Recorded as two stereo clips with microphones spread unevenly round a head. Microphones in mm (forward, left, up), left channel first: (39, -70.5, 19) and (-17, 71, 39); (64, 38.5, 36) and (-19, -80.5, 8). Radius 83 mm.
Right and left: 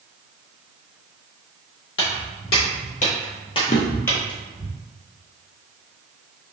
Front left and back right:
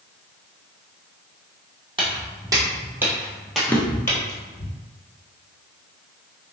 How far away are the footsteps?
About 1.7 m.